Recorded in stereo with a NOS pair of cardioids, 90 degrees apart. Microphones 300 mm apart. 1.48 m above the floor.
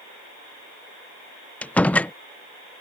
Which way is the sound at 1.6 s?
5° left.